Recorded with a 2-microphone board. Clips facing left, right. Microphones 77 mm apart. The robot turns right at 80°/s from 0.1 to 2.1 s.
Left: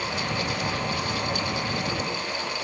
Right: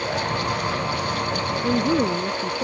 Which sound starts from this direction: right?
A woman speaking, at 1.6 s.